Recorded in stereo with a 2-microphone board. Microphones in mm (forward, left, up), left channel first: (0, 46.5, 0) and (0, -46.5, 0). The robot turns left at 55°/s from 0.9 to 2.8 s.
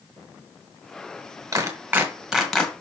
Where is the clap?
35° right (ahead or behind), 1.9 m; by 2.7 s 15° left (ahead or behind), 1.9 m.